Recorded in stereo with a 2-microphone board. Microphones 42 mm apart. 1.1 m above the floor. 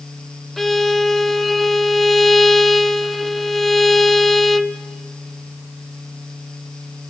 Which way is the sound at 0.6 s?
5° left (ahead or behind).